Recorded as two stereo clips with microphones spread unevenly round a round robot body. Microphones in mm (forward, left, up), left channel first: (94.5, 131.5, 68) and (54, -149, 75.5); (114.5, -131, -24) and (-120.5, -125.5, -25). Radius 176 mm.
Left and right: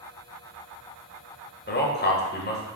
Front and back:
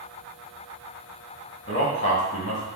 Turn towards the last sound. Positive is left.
turn(degrees=40)